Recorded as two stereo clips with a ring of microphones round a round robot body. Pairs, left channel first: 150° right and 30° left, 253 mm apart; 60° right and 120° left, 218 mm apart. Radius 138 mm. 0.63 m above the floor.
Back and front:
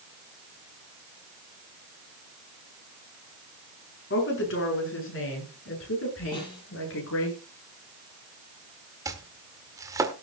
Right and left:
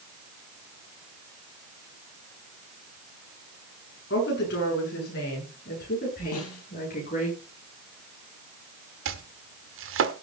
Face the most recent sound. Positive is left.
turn(degrees=105)